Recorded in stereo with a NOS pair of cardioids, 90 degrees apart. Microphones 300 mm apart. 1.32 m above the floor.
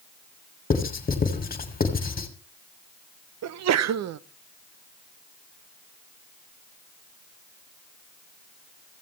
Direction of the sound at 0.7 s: 30° left.